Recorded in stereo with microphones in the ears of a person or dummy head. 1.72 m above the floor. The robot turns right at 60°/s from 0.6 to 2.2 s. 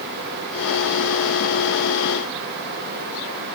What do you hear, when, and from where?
Only background noise.